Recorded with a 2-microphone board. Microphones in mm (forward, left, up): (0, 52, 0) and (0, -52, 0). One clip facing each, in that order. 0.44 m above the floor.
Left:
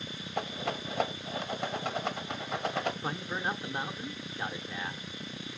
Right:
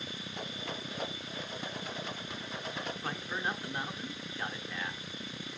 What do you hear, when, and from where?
0.4 s a rattle: 70° left (ahead or behind), 0.7 m
3.0 s a man speaking: 15° left (ahead or behind), 0.7 m